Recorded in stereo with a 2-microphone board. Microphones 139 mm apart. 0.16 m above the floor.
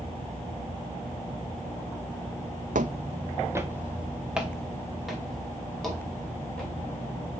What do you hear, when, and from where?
2.8 s footsteps: 70° right (ahead or behind), 0.6 m; by 6.7 s 5° left (ahead or behind), 5.5 m